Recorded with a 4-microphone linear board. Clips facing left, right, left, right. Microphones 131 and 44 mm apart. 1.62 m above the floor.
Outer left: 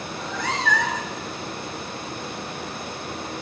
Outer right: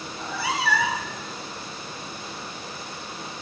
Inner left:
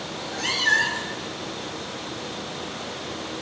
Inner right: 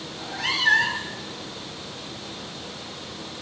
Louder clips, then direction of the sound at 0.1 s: Even, inner right 1 dB; 10° right (ahead or behind).